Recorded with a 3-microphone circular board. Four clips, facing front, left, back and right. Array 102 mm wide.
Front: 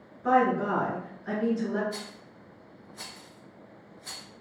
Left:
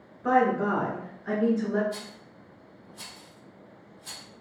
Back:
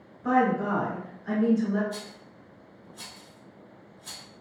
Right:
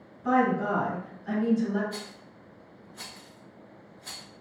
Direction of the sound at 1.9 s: 50° right.